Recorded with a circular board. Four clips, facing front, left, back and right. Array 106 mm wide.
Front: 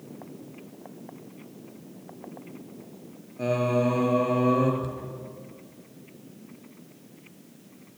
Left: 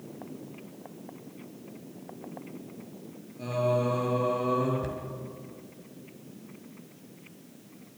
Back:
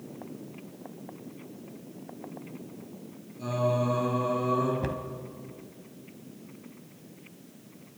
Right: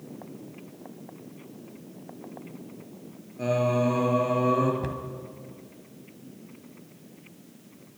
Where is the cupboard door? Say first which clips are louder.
Right 2 dB, back 2 dB; 160° right, 2.5 m.